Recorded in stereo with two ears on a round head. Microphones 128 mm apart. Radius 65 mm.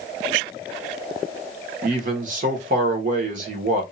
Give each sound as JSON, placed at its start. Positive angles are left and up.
{"t": 1.8, "sound": "a man speaking", "side_deg": -60, "distance_m": 1.2}